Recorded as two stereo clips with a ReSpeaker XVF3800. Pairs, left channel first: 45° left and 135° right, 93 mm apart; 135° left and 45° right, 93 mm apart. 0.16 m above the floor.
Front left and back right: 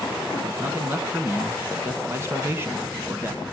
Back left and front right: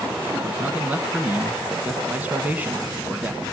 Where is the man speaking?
105° right, 1.1 m.